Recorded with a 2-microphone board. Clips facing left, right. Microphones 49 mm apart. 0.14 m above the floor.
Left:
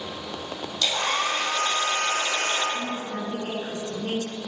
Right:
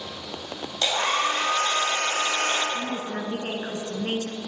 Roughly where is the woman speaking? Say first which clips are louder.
Even; right.